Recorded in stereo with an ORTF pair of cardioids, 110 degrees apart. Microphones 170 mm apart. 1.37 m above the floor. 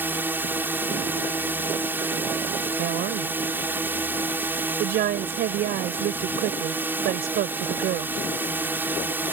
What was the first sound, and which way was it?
A drone, 15° right.